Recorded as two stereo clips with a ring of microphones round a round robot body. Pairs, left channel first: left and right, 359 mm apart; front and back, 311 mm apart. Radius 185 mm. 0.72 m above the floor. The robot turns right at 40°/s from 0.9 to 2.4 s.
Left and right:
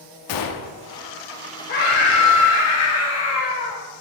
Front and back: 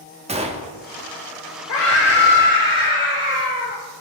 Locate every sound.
0.3 s a gunshot: 110° left, 1.1 m
1.7 s a scream: 25° left, 2 m; by 3.8 s 55° left, 2 m